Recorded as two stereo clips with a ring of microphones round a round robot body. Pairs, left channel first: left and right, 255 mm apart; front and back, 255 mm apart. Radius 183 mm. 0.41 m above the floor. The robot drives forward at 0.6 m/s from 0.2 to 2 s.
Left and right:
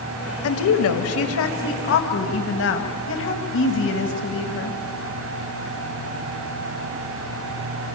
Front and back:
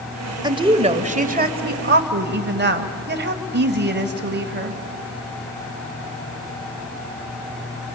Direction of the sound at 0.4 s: 105° left.